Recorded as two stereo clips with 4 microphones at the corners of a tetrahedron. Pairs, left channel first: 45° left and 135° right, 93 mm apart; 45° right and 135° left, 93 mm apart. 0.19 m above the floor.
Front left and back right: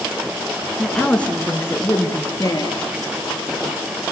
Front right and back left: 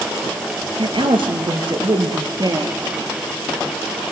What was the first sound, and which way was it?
A woman speaking, 135° left.